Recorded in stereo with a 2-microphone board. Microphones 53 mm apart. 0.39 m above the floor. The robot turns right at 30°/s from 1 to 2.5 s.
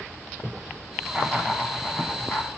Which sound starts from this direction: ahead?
Laughter, at 1.1 s.